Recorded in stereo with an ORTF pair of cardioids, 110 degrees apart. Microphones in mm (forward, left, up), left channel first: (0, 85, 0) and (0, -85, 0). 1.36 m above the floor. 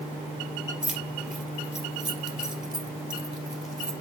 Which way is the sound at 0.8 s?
5° right.